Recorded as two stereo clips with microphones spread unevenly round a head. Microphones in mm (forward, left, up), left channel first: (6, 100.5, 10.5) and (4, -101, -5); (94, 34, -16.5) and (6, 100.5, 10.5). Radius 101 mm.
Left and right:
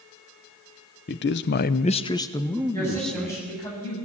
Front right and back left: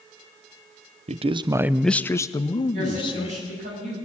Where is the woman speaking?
165° left, 7 m.